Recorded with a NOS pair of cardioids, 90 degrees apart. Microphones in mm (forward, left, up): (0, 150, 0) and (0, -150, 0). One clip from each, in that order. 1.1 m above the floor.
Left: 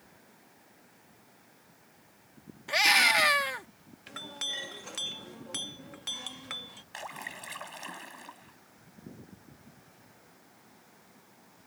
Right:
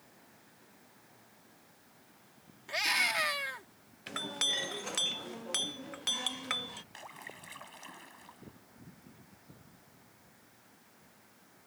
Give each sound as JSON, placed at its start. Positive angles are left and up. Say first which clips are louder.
{"t": 2.7, "sound": "a scream", "louder": "left 8 dB", "azimuth_deg": 50}
{"t": 4.1, "sound": "a clink", "louder": "right 3 dB", "azimuth_deg": -30}
{"t": 6.9, "sound": "a splash", "louder": "left 7 dB", "azimuth_deg": 50}